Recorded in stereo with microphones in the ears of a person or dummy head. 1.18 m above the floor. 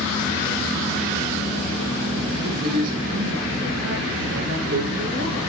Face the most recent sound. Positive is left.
turn(degrees=-45)  # may be behind; listen again after turning